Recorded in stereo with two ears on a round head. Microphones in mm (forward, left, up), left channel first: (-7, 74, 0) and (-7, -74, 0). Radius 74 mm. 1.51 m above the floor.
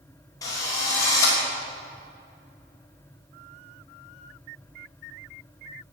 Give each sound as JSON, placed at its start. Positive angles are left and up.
{"t": 0.4, "sound": "a drill", "side_deg": 20, "distance_m": 5.5}